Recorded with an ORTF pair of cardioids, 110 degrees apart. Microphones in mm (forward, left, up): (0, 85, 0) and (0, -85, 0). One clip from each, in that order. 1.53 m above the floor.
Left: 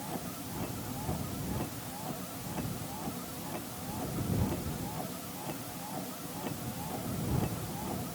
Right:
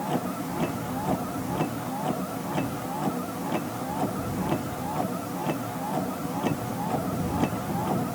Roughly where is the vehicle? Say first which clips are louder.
Right 11 dB; ahead right.